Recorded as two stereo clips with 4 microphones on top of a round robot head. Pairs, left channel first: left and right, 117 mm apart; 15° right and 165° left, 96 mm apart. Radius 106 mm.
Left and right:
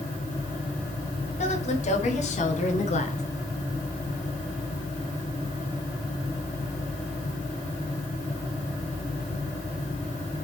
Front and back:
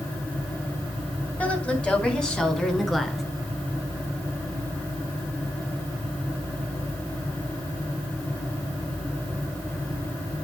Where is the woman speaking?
60° left, 4.5 m; by 3.2 s 75° left, 3.5 m.